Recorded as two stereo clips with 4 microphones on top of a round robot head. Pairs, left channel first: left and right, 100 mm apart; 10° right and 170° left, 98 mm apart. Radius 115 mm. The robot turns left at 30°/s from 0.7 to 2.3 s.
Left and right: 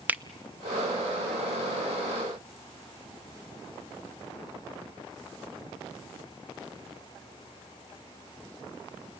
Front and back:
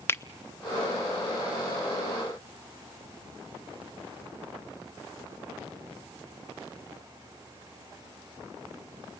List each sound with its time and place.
0.1 s a finger snap: 40° right, 0.7 m